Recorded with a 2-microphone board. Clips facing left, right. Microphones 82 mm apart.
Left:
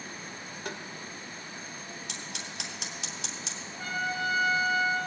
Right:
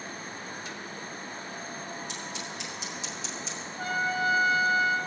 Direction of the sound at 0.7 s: 55° left (ahead or behind).